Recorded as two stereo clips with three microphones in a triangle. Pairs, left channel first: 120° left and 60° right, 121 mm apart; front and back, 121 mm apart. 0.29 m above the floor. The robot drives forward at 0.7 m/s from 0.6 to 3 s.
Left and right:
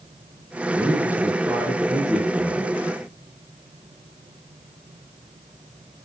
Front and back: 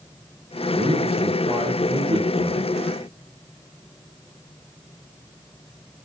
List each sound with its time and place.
0.7 s a man speaking: 135° right, 5.5 m; by 2.7 s 145° right, 6.5 m